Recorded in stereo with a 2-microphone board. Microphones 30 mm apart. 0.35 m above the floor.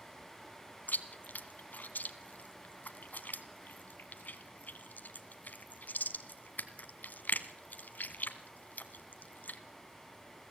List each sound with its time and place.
0.9 s chewing: 75° left (ahead or behind), 1.4 m